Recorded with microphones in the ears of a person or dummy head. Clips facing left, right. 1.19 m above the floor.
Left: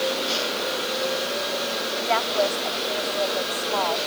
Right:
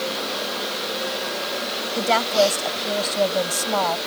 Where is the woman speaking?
55° right (ahead or behind).